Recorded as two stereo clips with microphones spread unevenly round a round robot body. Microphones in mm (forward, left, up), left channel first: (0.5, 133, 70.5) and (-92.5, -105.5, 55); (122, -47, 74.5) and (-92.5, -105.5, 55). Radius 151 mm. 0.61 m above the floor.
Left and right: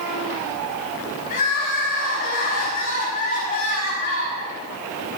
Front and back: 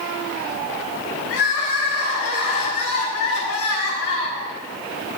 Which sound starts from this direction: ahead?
Crying, at 1.3 s.